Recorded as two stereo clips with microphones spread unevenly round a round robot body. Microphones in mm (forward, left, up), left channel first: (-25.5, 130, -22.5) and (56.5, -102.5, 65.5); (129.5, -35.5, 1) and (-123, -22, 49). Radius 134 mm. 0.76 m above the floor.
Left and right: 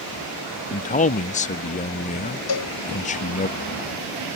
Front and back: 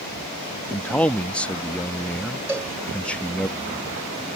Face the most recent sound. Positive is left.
turn(degrees=95)